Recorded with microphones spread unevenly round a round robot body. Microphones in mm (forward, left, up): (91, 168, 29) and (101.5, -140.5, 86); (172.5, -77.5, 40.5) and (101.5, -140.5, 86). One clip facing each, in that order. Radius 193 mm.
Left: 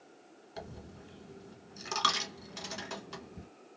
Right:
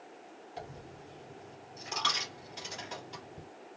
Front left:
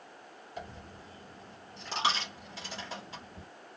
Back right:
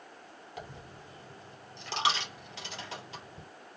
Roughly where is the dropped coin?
Left.